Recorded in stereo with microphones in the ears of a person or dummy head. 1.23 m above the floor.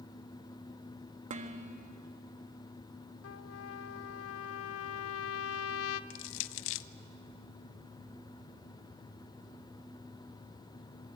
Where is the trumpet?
80° left, 0.8 m.